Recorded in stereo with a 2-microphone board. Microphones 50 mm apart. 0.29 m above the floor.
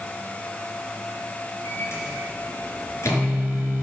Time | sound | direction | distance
1.6 | a microwave | 65° left (ahead or behind) | 3.5 m